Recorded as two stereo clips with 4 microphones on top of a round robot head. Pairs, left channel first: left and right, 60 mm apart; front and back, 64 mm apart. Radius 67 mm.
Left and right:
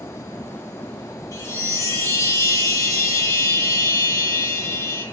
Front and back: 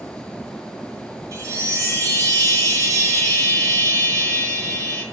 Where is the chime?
140° left, 4.5 m.